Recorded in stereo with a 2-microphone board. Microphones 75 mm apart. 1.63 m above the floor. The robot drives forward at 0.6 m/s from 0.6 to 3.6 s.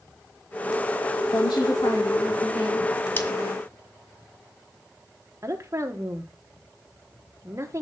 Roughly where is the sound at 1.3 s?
Left.